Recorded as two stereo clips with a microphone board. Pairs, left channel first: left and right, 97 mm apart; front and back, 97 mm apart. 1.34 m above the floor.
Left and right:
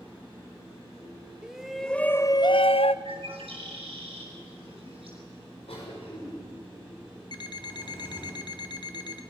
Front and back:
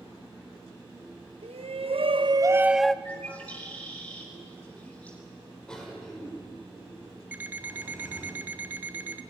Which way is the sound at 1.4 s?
170° right.